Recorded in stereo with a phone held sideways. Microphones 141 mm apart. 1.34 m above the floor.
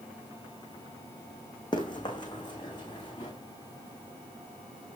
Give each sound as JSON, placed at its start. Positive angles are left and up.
{"t": 1.7, "sound": "running footsteps", "side_deg": 35, "distance_m": 3.5}